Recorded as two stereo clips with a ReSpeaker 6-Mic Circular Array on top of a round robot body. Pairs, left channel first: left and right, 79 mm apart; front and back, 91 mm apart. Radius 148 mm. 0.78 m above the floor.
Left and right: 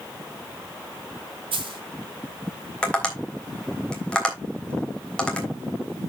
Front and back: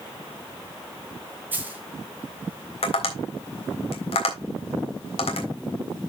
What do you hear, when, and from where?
1.5 s a dropped coin: 105° right, 0.9 m
2.8 s tapping: 10° left, 3.5 m